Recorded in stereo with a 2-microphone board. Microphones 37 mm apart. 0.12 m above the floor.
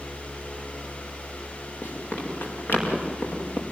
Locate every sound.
1.8 s running footsteps: 85° left, 9 m; by 3.6 s 80° left, 6 m